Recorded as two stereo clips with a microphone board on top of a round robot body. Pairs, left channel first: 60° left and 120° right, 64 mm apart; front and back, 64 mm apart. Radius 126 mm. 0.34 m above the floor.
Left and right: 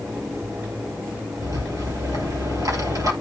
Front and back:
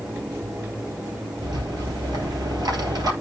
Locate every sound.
1.4 s a rattle: 155° right, 3 m